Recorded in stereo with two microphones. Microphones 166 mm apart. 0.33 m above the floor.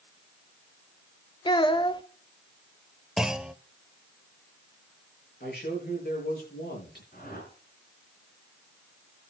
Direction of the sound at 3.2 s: 5° right (ahead or behind).